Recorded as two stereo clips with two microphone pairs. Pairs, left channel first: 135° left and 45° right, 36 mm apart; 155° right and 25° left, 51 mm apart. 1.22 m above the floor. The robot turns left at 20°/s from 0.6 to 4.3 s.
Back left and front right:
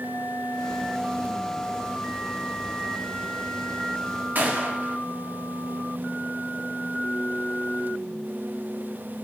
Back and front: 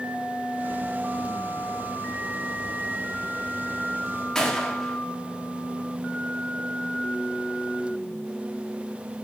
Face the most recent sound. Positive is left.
turn(degrees=-80)